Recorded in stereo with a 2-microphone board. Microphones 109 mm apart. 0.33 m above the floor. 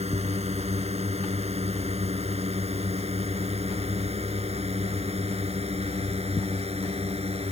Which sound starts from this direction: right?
A drone, at 0.0 s.